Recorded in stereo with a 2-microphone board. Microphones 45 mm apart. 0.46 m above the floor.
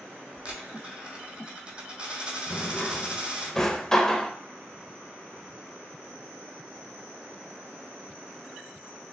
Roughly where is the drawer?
Centre.